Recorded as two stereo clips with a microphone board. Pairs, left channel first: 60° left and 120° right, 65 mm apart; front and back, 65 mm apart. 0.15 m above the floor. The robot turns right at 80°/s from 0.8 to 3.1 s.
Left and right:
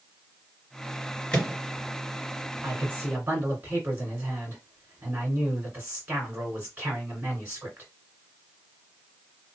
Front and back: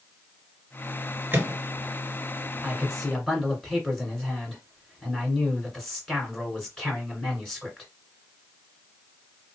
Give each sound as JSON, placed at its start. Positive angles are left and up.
{"t": 1.3, "sound": "a microwave", "azimuth_deg": 130, "distance_m": 2.0}
{"t": 2.6, "sound": "a man speaking", "azimuth_deg": -115, "distance_m": 2.0}